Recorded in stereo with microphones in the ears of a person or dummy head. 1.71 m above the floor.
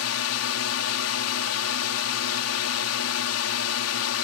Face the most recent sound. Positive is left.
turn(degrees=80)